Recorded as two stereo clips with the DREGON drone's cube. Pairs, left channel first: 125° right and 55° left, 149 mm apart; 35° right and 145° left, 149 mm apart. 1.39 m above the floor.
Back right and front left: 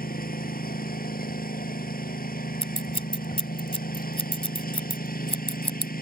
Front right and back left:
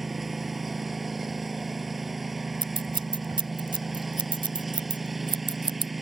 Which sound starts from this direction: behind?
Scissors, at 2.6 s.